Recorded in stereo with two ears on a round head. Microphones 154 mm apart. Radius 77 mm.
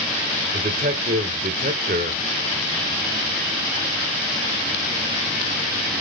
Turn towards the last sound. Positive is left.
turn(degrees=-50)  # may be behind; listen again after turning